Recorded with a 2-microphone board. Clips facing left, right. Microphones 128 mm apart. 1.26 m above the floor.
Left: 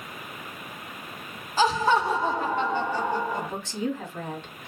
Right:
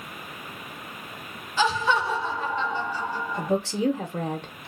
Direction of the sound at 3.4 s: 70° right (ahead or behind).